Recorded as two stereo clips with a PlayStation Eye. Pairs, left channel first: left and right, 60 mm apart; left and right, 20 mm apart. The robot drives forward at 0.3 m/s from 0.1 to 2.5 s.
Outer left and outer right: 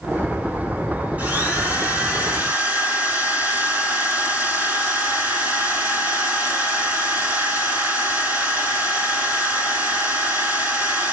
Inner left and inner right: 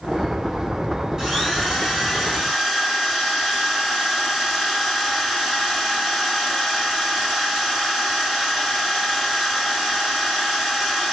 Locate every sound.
1.2 s a drill: 25° right (ahead or behind), 3.5 m